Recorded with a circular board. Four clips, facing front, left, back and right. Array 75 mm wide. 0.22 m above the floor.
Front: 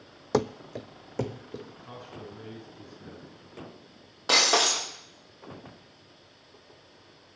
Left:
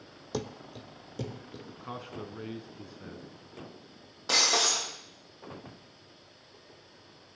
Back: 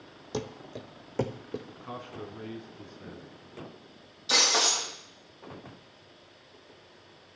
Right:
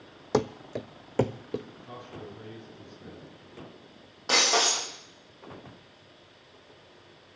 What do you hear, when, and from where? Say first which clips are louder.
0.3 s running footsteps: right 10 dB, front 9 dB; 45° right, 0.6 m; by 1.6 s 105° right, 1.3 m
1.7 s a man speaking: left 2 dB, back 3 dB; 110° left, 1.9 m
4.3 s breaking glass: right 4 dB, front 3 dB; 10° right, 5 m